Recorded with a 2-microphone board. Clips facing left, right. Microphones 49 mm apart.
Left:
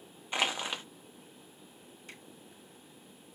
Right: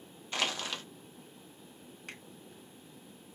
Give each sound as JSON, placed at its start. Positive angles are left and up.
{"t": 0.3, "sound": "crushing", "side_deg": 20, "distance_m": 0.7}
{"t": 2.1, "sound": "a finger snap", "side_deg": -80, "distance_m": 2.0}